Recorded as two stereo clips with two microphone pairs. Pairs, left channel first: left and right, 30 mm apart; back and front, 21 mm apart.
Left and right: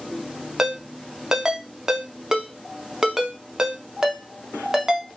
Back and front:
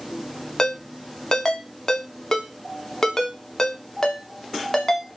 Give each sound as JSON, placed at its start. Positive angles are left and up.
{"t": 0.6, "sound": "a ringtone", "azimuth_deg": -145, "distance_m": 0.6}